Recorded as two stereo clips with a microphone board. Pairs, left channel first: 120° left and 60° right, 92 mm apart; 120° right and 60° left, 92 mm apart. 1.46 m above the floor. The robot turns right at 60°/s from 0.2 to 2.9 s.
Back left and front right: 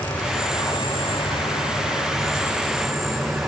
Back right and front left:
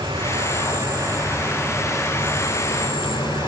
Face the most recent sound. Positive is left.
turn(degrees=-150)